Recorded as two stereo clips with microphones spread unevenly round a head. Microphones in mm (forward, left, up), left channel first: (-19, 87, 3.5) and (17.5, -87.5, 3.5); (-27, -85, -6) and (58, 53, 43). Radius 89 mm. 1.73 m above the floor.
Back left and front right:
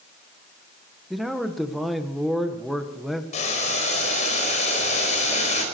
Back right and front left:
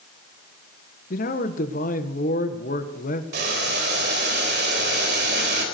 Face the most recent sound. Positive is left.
turn(degrees=50)